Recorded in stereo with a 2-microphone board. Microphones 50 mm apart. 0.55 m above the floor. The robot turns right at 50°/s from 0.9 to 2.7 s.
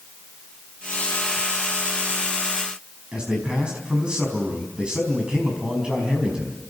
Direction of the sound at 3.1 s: 15° right (ahead or behind).